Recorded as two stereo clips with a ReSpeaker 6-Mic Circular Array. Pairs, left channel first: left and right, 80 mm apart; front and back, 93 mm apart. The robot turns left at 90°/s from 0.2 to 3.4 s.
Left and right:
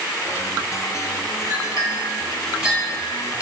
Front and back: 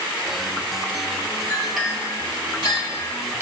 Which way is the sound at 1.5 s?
65° right.